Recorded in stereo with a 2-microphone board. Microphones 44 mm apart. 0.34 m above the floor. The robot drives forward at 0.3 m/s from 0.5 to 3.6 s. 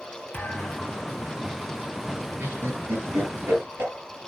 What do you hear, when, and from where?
0.3 s a thud: 50° left (ahead or behind), 3.5 m; by 1.1 s 55° left (ahead or behind), 3.5 m
2.4 s laughter: 80° right, 8 m; by 3.9 s 75° right (ahead or behind), 8 m